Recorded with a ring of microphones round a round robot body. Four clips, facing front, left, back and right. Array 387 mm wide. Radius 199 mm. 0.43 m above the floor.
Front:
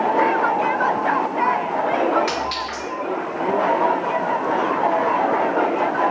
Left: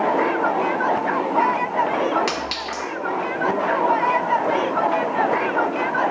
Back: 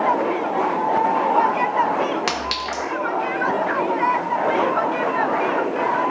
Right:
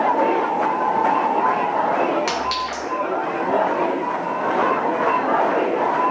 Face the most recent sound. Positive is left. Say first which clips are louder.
# right 4 dB, front 1 dB
turn(degrees=175)